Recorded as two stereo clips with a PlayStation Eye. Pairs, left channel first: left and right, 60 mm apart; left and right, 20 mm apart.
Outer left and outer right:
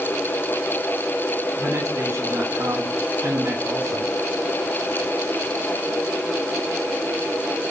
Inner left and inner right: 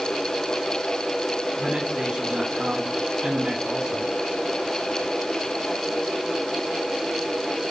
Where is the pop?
No pop in this recording.